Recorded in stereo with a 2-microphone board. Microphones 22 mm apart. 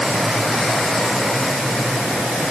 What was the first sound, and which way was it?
Only background noise.